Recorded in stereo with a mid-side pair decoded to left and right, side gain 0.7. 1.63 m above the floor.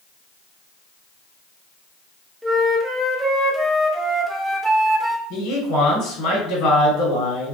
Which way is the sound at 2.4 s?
5° right.